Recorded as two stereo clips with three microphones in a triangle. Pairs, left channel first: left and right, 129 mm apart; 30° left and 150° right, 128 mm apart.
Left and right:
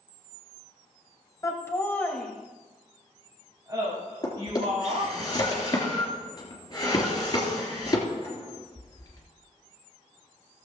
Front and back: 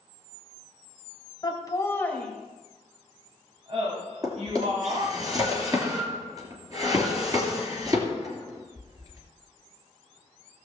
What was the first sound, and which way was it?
Laughter, 50° left.